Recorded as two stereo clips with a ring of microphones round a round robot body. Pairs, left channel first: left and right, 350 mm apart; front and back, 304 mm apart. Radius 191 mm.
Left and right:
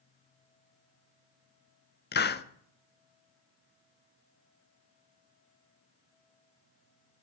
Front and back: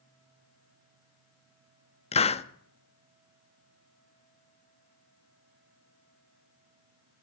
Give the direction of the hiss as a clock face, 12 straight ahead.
10 o'clock.